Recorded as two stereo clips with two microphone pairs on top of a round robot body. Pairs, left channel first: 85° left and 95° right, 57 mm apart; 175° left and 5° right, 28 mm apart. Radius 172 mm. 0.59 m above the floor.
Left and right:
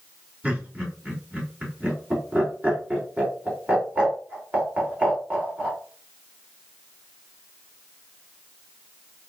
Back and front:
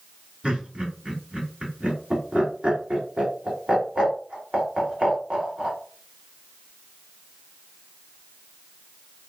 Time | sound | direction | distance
0.4 | laughter | 45° right | 2.5 m